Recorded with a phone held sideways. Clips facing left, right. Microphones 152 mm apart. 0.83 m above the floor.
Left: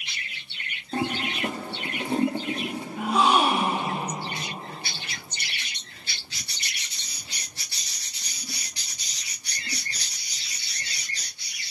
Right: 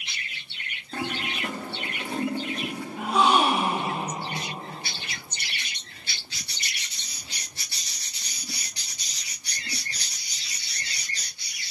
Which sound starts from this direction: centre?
A gasp, at 3.0 s.